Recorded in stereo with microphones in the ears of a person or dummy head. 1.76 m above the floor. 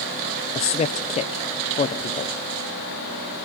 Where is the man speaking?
30° left (ahead or behind), 0.7 m.